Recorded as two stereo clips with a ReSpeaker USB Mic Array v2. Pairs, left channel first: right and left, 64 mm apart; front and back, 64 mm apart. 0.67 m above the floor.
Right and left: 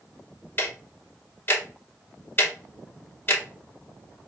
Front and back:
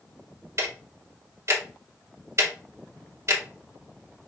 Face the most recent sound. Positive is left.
turn(degrees=-140)